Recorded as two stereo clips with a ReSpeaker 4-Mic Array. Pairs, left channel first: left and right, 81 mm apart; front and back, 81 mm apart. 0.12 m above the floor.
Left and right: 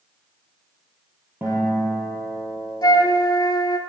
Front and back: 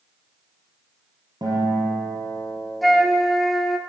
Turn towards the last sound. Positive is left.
turn(degrees=90)